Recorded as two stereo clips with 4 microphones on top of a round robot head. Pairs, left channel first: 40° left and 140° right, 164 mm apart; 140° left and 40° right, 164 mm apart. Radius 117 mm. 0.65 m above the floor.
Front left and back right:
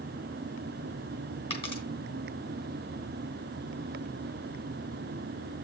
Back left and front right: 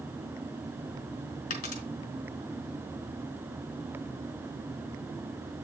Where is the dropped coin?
95° left, 3 m.